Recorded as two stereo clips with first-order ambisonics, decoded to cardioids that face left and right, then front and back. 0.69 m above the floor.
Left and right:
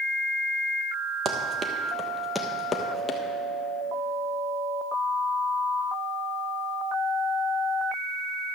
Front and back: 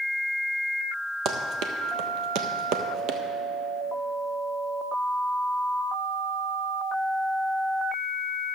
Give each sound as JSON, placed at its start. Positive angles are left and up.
{"t": 1.2, "sound": "running footsteps", "azimuth_deg": -140, "distance_m": 1.2}